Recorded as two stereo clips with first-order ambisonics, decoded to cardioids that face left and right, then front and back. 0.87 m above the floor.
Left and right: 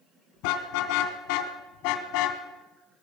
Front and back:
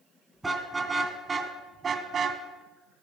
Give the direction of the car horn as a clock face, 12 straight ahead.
9 o'clock.